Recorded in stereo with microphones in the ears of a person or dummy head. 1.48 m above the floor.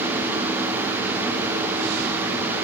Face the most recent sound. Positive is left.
No sound to turn to.